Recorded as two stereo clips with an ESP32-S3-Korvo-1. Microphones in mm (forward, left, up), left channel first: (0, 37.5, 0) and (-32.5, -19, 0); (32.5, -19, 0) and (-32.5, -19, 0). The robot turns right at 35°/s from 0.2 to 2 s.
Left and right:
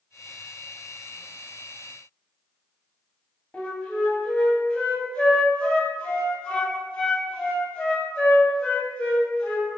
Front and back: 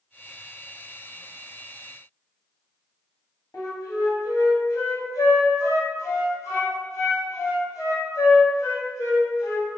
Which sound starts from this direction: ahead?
A flute, at 3.5 s.